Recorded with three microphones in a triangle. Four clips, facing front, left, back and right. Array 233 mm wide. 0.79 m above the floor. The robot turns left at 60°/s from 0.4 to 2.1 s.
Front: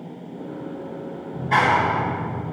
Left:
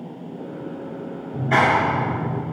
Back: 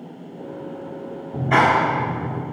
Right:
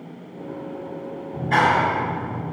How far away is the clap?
About 1.8 m.